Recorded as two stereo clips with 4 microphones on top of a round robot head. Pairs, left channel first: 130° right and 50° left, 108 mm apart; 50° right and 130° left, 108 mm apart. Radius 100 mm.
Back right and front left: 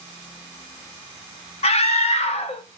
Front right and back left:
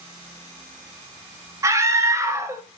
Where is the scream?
165° right, 2.0 m.